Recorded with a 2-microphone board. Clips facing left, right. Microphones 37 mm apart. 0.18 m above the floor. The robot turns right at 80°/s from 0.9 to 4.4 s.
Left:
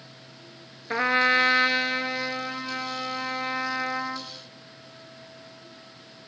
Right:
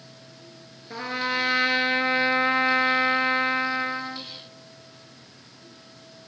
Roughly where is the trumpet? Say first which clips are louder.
Left 7 dB; behind left.